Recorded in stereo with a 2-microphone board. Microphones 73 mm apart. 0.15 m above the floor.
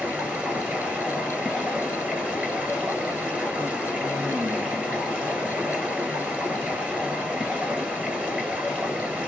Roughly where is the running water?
Centre.